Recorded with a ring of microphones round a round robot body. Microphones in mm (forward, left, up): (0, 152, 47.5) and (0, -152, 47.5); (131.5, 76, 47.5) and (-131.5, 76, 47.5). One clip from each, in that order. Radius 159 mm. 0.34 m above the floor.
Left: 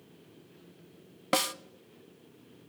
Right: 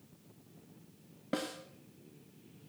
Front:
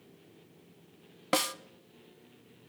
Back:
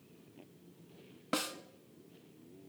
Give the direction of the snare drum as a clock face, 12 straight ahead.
10 o'clock.